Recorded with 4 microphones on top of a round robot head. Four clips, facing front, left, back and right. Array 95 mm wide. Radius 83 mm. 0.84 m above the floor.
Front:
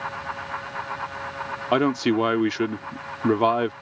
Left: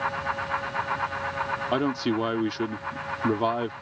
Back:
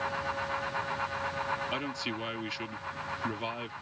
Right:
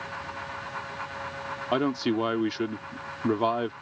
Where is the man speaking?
Straight ahead.